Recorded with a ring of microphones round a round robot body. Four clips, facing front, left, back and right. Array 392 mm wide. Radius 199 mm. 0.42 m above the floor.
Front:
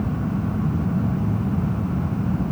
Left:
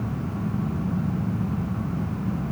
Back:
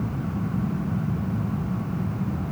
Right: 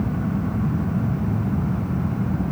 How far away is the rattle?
No rattle in this recording.